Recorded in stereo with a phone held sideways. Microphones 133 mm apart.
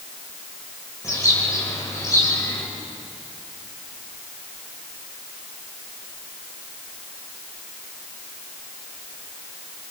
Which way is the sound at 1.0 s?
25° left (ahead or behind).